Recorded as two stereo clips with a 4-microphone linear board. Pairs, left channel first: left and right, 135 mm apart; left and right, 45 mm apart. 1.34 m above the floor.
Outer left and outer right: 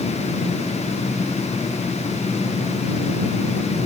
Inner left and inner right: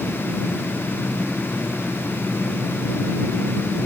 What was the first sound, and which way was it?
Only background noise.